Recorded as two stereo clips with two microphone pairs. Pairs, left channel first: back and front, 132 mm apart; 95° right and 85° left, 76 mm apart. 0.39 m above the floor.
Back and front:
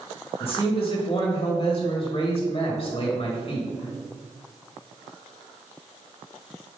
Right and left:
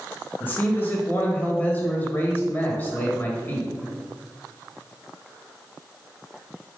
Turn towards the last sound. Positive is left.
turn(degrees=-155)